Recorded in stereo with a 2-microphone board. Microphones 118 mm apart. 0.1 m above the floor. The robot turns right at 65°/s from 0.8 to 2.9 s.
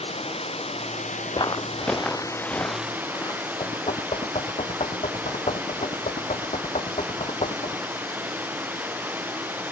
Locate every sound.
0.0 s running water: 60° left; by 9.7 s 165° right
1.3 s footsteps: 40° left (ahead or behind); by 3.5 s 30° left (ahead or behind)
3.6 s knocking: 60° left (ahead or behind)